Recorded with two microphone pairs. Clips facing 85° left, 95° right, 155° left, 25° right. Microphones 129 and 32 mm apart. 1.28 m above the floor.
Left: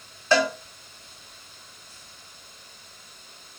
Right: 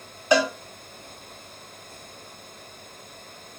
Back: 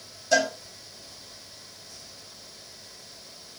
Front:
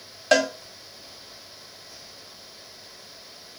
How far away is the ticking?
I don't hear ticking.